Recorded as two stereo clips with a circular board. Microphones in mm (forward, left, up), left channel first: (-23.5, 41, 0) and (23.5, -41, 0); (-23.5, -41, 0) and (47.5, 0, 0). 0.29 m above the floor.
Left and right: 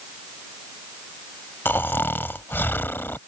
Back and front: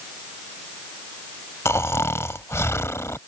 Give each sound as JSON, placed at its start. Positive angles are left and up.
{"t": 1.6, "sound": "snoring", "azimuth_deg": 175}